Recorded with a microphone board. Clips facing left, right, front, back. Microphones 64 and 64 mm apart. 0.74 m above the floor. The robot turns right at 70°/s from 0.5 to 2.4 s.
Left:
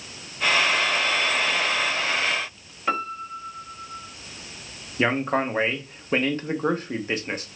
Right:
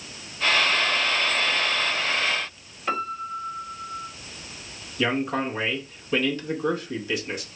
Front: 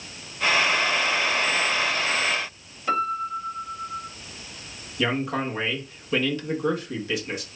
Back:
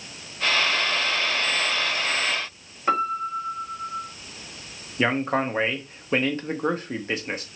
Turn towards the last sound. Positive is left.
turn(degrees=135)